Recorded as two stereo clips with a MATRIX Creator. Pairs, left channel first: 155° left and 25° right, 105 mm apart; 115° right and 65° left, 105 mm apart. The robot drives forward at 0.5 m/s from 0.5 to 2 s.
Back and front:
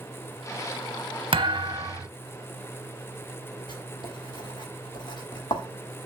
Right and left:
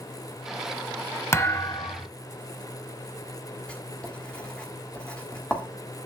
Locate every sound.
1.3 s a thud: 50° right, 0.7 m; by 2.1 s 80° right, 0.6 m
3.7 s writing: 170° left, 1.5 m